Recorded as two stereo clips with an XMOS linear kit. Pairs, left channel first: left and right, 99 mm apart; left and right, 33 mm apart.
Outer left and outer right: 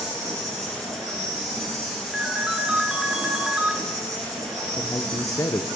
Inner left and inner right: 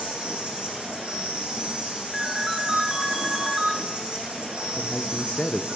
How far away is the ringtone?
About 0.9 m.